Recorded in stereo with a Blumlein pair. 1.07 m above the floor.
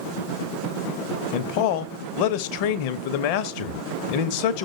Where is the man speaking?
45° left, 0.6 m.